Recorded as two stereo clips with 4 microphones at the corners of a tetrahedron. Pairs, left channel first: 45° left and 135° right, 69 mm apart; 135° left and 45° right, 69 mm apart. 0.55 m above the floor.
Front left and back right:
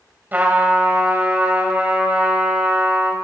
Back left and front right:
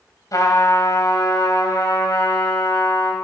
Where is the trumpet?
165° left, 2.5 m.